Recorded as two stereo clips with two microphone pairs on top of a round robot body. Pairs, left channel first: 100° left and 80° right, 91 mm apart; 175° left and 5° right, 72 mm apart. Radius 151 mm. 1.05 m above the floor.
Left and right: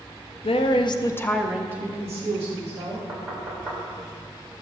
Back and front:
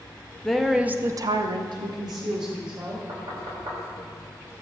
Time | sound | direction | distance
0.4 | a woman speaking | 90° left | 1.0 m
3.1 | knocking | 5° left | 3.5 m